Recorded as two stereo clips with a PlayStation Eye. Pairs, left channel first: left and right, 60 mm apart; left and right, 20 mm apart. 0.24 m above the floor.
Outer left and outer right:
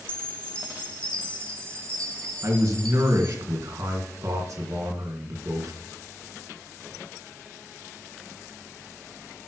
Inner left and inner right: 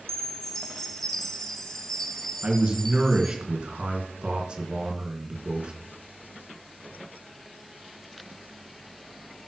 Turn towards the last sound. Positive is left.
turn(degrees=-65)  # may be behind; listen again after turning